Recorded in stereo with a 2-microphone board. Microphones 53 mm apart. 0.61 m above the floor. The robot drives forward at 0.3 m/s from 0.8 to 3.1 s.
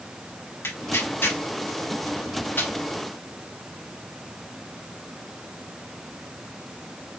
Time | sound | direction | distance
0.6 | tearing paper | 55° left (ahead or behind) | 1.8 m